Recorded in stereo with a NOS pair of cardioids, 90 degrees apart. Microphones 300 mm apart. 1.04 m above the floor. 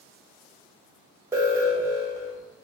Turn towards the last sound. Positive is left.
turn(degrees=-10)